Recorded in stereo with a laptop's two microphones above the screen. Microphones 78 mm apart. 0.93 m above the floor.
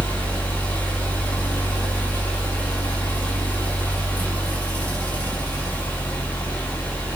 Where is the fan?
20° left (ahead or behind), 1.8 m.